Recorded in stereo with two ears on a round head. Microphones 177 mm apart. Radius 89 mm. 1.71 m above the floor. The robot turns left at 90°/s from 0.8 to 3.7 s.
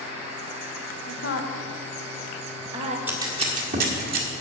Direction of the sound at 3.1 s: 10° right (ahead or behind).